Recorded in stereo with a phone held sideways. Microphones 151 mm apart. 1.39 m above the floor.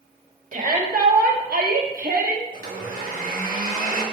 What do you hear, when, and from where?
0.5 s a shout: 60° right (ahead or behind), 1.5 m; by 2.4 s 70° right (ahead or behind), 1.3 m
2.5 s a blender: 70° right (ahead or behind), 1.6 m